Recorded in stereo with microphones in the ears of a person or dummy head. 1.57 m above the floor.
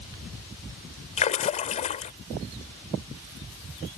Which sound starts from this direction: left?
A splash, at 1.2 s.